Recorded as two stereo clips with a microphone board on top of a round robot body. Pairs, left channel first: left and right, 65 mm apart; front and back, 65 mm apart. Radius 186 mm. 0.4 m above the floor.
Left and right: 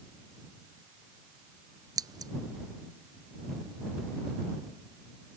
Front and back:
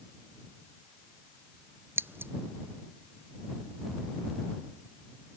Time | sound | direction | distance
2.0 | scissors | 120° right | ?